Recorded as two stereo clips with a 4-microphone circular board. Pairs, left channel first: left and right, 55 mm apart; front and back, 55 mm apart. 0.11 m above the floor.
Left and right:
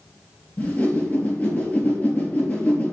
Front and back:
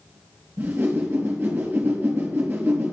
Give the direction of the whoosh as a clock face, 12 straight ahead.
7 o'clock.